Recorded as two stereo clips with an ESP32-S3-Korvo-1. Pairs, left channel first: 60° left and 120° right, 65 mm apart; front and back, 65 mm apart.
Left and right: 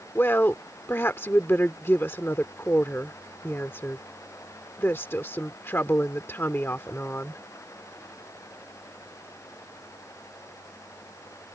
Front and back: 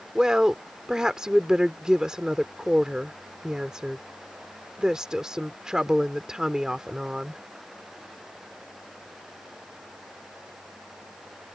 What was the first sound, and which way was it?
A woman speaking, 105° left.